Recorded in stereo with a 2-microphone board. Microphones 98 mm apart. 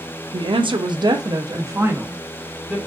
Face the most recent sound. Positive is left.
turn(degrees=-20)  # may be behind; listen again after turning